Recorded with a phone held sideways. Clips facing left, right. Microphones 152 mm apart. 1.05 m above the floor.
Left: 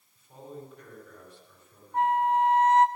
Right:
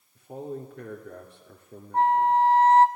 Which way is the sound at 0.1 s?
85° right.